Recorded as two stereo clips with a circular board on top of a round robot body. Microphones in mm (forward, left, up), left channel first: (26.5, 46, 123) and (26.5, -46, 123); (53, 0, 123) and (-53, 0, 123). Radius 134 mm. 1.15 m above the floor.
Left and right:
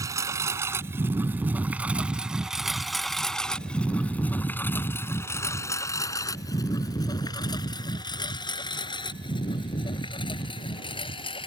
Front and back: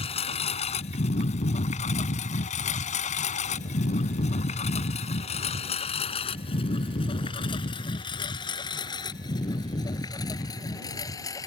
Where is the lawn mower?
35° right; by 11.5 s 60° left.